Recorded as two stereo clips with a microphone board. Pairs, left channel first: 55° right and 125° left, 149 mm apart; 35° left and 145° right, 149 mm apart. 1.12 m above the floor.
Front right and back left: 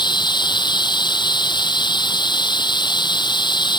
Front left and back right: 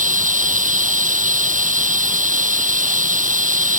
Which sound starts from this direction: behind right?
Running water, at 0.0 s.